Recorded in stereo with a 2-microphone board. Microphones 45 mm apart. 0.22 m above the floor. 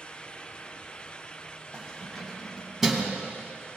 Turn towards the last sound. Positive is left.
turn(degrees=-25)  # may be behind; listen again after turning